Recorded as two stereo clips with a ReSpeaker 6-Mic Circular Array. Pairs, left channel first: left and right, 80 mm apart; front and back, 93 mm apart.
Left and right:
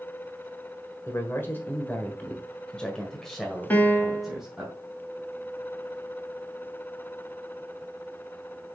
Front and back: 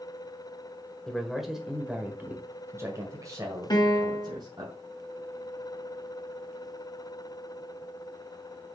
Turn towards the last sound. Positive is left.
turn(degrees=25)